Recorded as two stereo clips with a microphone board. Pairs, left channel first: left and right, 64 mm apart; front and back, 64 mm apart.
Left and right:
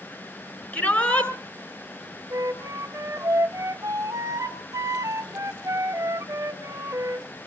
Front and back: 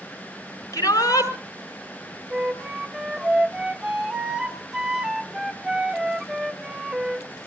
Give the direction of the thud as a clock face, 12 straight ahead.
I don't hear a thud.